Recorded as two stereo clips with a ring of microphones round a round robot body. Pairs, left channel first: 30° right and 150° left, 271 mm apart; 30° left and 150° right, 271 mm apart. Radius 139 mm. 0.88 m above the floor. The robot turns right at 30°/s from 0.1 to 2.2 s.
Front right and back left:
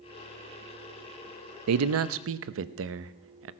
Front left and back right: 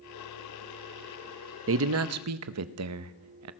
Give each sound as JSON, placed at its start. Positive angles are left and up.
{"t": 1.7, "sound": "a man speaking", "azimuth_deg": 170, "distance_m": 0.7}